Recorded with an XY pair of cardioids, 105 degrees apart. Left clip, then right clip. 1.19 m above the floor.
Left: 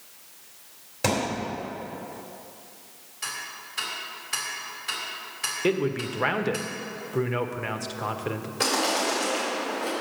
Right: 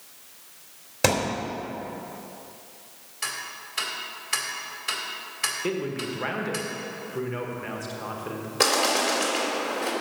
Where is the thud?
40° right, 2.5 m.